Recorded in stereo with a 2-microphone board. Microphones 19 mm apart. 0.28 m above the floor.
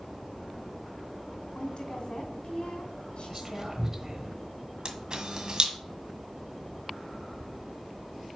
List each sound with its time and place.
1.6 s a woman speaking: 60° left (ahead or behind), 3 m
3.3 s whispering: 20° right (ahead or behind), 1.0 m
4.8 s a camera shutter: 40° right (ahead or behind), 1.6 m